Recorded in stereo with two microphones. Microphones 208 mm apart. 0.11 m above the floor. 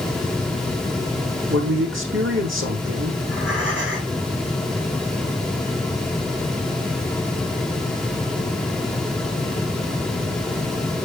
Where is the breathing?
60° right (ahead or behind), 5.5 m.